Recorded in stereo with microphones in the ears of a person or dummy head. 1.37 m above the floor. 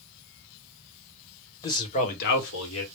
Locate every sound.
1.6 s a man speaking: 20° left (ahead or behind), 1.1 m; by 2.9 s 80° left, 1.3 m